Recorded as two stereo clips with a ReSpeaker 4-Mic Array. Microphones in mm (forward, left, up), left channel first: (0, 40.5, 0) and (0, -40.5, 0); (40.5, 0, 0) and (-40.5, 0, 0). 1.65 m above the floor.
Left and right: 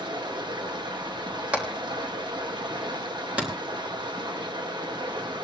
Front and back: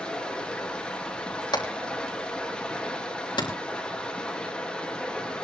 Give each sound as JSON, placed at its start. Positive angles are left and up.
{"t": 0.0, "sound": "running water", "azimuth_deg": -75, "distance_m": 1.8}
{"t": 1.5, "sound": "hammering", "azimuth_deg": -20, "distance_m": 3.5}